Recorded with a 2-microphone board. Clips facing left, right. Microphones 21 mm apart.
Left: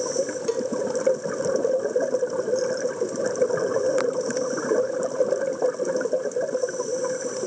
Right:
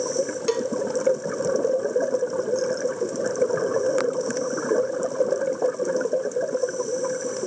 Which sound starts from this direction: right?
A cowbell, at 0.5 s.